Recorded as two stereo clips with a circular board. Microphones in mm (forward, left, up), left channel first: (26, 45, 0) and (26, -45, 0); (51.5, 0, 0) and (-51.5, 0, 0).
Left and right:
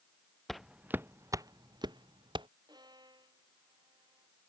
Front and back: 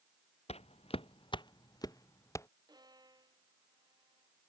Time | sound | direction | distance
0.5 | footsteps | 5° left | ?
2.7 | a violin | 130° right | ?